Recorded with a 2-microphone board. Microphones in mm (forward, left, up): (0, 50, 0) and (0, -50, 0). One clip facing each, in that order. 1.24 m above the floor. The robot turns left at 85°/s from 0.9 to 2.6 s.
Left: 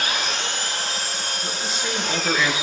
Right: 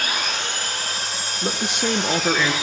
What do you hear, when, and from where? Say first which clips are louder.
0.0 s an engine running: even; 95° left, 6.5 m; by 2.6 s 50° right, 6.5 m
1.4 s a man speaking: right 8 dB; 80° right, 0.6 m; by 2.5 s straight behind, 0.6 m